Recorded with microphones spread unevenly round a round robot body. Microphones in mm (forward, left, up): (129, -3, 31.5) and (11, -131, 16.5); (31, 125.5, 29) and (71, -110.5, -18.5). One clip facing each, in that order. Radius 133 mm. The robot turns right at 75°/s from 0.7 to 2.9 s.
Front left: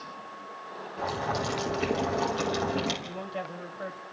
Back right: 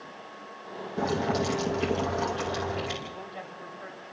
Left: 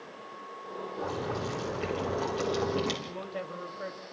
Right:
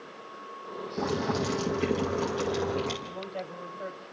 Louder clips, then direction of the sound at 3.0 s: Front left 4 dB, even; 30° left.